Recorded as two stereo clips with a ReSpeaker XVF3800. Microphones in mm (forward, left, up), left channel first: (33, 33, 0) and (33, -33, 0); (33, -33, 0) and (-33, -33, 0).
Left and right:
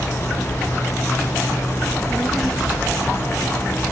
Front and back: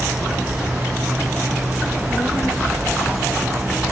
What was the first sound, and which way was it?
A child speaking, 5° right.